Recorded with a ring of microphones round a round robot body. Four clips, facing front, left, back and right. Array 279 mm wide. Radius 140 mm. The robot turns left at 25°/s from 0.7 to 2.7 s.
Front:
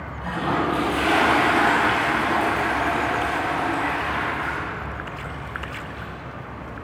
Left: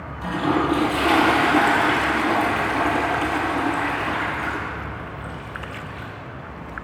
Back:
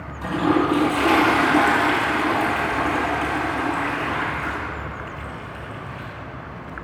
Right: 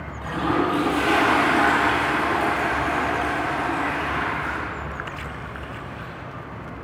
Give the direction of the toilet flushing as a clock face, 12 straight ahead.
7 o'clock.